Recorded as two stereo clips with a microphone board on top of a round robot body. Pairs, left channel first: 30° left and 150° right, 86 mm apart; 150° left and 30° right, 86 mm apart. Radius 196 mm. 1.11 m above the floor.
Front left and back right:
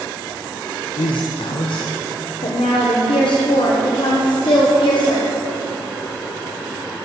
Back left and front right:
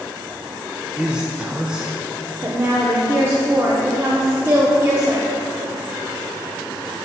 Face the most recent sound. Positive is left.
turn(degrees=30)